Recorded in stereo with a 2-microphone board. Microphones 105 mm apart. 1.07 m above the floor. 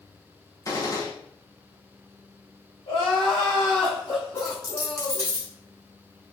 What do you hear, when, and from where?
0.7 s a gunshot: 35° left (ahead or behind), 0.8 m
2.9 s crying: 65° left (ahead or behind), 1.6 m
4.4 s a dropped coin: 30° left (ahead or behind), 1.5 m